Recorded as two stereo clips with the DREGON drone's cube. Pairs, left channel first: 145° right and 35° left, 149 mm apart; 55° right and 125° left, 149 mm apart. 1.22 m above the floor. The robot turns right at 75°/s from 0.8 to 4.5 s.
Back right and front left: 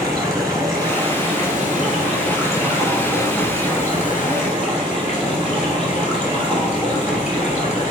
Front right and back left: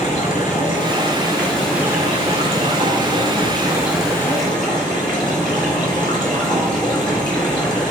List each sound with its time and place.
0.0 s running water: 30° right, 2 m; by 7.9 s 110° right, 2 m